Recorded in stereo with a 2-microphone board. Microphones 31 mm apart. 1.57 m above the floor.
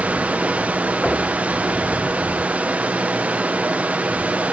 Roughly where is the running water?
Right.